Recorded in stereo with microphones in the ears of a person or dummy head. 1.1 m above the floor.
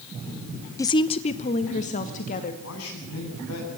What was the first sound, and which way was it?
A woman speaking, 15° left (ahead or behind).